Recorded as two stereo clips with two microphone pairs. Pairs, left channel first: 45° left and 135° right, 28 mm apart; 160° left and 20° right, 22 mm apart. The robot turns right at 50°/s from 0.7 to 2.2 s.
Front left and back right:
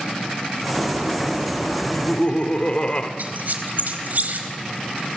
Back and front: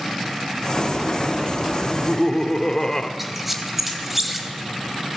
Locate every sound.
1.8 s laughter: 75° left, 2 m; by 3.1 s 95° left, 2 m
3.2 s a squeak: 105° right, 3 m